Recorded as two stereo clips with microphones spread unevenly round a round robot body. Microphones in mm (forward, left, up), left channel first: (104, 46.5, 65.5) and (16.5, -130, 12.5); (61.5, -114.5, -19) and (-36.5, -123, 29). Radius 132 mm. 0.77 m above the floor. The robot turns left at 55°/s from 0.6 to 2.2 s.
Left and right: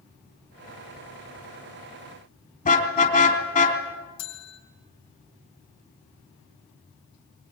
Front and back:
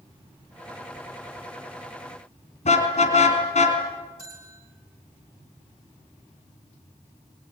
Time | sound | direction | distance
2.6 | a car horn | 15° left | 3.5 m
4.2 | a bell | 80° left | 4 m